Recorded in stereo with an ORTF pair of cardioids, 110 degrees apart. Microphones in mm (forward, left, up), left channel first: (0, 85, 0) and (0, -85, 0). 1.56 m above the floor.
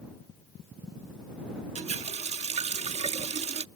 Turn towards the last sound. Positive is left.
turn(degrees=-40)